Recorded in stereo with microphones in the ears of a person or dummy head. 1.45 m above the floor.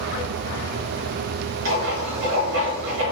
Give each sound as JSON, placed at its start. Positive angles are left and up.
{"t": 1.6, "sound": "writing", "side_deg": -75, "distance_m": 1.8}